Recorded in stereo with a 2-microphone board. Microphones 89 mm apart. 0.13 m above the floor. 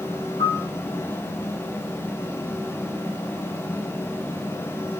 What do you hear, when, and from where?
0.4 s a piano: 70° left (ahead or behind), 2.5 m